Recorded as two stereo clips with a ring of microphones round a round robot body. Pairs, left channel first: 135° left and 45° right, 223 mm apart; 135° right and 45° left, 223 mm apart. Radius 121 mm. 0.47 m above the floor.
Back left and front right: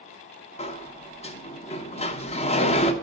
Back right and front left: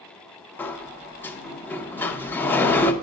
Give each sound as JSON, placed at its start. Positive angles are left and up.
{"t": 0.6, "sound": "a sliding door", "azimuth_deg": 155, "distance_m": 0.7}